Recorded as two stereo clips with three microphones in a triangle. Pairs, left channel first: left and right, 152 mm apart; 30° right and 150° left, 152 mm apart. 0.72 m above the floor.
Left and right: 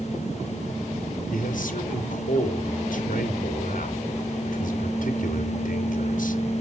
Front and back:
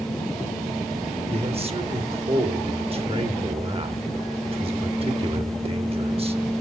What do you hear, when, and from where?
1.3 s a man speaking: 105° left, 1.8 m